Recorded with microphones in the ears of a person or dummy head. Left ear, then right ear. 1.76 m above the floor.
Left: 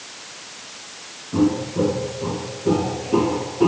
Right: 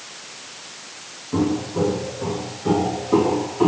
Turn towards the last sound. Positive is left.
turn(degrees=-60)  # may be behind; listen again after turning